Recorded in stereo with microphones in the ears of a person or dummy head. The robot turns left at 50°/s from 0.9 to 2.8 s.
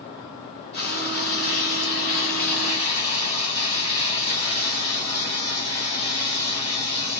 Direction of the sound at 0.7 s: 140° left.